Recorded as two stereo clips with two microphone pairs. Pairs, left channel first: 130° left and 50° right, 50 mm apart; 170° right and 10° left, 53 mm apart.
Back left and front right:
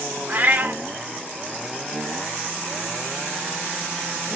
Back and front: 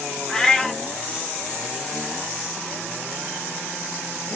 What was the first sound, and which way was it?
A cat meowing, 95° right.